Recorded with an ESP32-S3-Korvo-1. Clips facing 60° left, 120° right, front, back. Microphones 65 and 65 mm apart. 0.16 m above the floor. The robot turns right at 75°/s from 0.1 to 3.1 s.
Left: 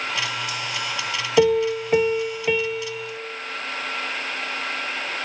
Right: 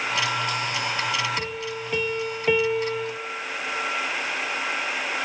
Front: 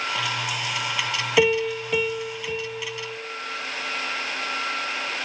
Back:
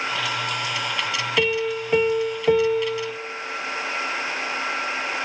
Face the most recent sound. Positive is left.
turn(degrees=-160)